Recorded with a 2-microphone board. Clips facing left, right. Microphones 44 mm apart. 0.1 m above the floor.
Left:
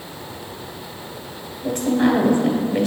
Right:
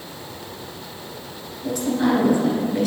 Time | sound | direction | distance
1.6 | a woman speaking | 30° left (ahead or behind) | 1.4 m